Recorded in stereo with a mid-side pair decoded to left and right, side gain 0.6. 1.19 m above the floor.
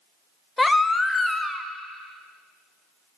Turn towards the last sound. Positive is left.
turn(degrees=15)